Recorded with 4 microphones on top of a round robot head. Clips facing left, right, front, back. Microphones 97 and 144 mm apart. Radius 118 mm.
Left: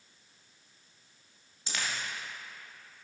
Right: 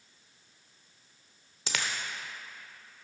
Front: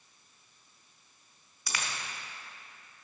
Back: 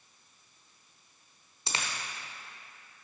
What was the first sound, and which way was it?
A dropped coin, 110° right.